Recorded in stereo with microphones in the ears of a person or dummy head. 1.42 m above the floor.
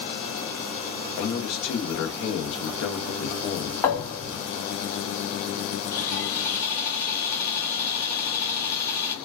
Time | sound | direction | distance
1.2 | a man speaking | 65° left (ahead or behind) | 0.7 m
3.8 | a thud | 15° left (ahead or behind) | 1.8 m
5.9 | sawing | 20° left (ahead or behind) | 2.0 m